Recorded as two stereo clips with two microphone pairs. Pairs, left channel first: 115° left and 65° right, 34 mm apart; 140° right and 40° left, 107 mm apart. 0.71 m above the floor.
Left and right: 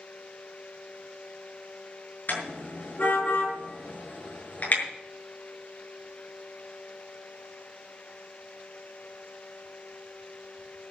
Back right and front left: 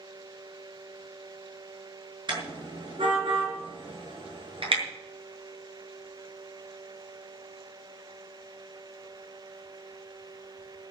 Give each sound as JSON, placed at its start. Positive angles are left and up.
{"t": 2.3, "sound": "a car horn", "azimuth_deg": 85, "distance_m": 6.5}